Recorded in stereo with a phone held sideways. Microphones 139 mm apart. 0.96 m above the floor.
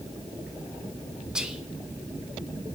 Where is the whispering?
5° right (ahead or behind), 1.3 m.